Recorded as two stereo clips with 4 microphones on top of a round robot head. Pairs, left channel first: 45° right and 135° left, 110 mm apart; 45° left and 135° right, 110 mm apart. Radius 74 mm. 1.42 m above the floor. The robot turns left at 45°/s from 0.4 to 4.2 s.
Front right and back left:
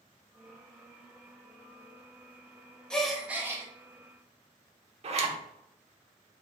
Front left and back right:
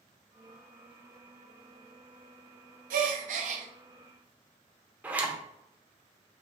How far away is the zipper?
About 1.0 m.